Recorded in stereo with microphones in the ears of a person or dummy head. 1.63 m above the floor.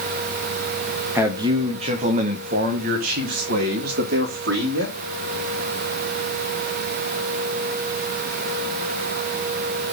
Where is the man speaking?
15° right (ahead or behind), 0.8 m; by 5.0 s 70° right (ahead or behind), 3 m.